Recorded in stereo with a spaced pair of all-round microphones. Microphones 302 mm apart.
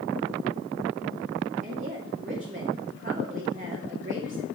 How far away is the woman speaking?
About 2.5 m.